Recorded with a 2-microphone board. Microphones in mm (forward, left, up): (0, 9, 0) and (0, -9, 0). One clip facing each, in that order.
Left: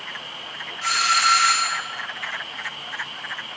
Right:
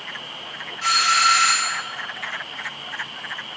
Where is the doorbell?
10° right (ahead or behind), 2.5 m.